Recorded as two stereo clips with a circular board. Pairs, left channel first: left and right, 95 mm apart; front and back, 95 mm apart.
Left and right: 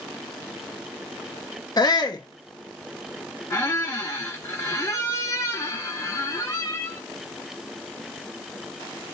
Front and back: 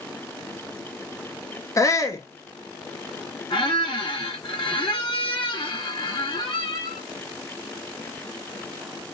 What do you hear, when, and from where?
1.8 s a shout: 50° left, 0.8 m
3.5 s a squeak: 30° left, 1.4 m